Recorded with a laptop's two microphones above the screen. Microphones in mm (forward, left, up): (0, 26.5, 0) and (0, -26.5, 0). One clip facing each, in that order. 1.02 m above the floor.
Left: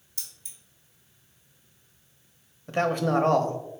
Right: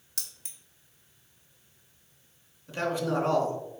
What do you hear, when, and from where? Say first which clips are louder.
0.2 s keys jangling: right 2 dB; 75° right (ahead or behind), 0.9 m
2.7 s a man speaking: left 5 dB; 50° left (ahead or behind), 0.6 m